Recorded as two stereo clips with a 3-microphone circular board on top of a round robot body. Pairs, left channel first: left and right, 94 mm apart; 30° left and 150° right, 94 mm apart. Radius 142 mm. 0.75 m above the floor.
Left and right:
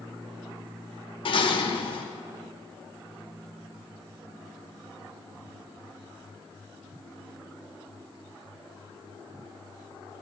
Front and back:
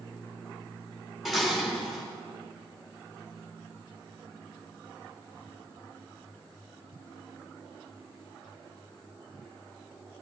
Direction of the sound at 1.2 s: 120° left.